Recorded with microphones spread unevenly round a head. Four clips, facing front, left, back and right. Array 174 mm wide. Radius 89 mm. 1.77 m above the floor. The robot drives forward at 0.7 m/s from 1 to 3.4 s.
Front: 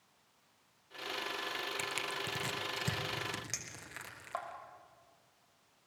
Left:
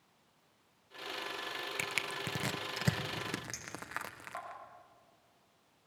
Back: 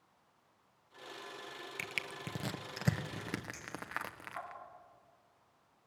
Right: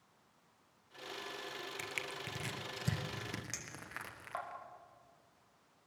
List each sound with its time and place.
1.8 s crushing: 100° left, 0.9 m; by 4.5 s 145° left, 1.5 m
3.5 s a clink: 20° right, 5.5 m